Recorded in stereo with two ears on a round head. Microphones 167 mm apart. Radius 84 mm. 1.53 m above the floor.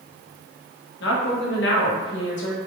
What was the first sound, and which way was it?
A woman speaking, 65° left (ahead or behind).